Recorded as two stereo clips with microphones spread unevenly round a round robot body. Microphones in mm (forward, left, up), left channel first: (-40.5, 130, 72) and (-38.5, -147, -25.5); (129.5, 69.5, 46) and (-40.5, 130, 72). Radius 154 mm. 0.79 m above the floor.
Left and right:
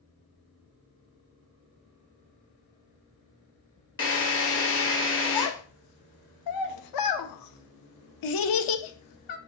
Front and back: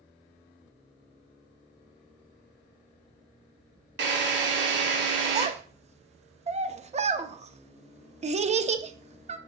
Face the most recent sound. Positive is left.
turn(degrees=105)